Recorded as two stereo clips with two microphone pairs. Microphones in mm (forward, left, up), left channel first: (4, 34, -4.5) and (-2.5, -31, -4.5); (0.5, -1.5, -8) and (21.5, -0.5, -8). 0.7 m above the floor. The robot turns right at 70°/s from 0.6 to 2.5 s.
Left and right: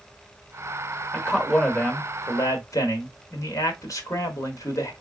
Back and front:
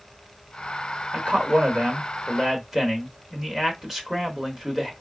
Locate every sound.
1.1 s a man speaking: 25° right, 1.3 m; by 4.9 s 70° left, 1.3 m